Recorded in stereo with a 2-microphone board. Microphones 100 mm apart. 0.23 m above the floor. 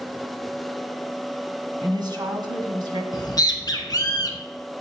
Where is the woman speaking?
45° right (ahead or behind), 1.7 m.